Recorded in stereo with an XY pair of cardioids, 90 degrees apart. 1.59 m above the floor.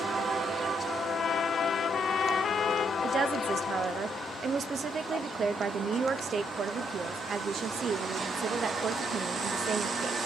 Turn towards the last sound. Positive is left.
turn(degrees=-55)